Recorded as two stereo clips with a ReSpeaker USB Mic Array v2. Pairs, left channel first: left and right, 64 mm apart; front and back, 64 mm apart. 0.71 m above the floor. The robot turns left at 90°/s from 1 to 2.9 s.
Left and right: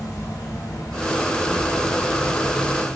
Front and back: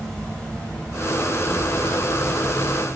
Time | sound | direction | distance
0.0 | an insect | 75° left | 0.9 m